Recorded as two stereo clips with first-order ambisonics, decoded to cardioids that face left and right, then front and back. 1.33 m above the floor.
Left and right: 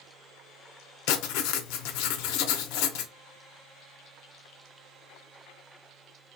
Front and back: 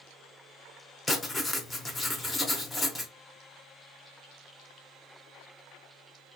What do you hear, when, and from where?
1.1 s writing: 75° left, 0.6 m